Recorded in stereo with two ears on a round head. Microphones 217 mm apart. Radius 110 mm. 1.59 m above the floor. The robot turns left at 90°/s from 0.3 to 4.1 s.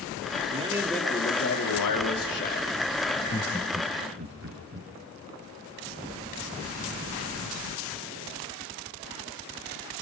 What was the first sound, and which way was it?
A man speaking, 145° right.